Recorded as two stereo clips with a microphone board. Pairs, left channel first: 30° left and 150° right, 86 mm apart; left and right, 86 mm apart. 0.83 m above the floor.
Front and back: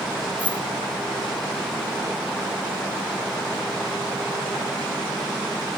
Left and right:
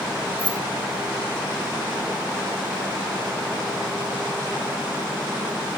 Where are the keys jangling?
100° left, 1.5 m.